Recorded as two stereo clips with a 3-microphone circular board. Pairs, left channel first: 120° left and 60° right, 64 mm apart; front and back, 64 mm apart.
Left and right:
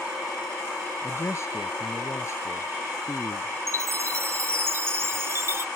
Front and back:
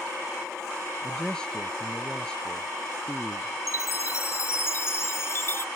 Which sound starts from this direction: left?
A man speaking, at 1.0 s.